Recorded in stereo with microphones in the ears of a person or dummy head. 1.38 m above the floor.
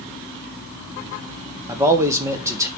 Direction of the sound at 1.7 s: 20° right (ahead or behind).